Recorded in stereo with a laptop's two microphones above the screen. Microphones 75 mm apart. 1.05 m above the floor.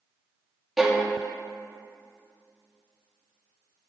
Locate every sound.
0.8 s a violin: centre (ahead or behind), 0.6 m